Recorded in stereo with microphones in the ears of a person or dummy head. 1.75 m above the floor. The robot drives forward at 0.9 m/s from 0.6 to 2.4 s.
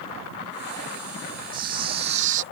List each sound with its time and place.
1.5 s a camera shutter: 25° right (ahead or behind); by 2.4 s 45° right (ahead or behind)